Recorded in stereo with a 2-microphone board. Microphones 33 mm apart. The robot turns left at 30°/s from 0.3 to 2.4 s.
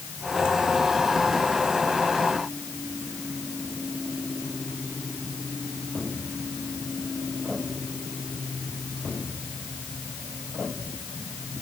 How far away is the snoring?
I don't hear snoring.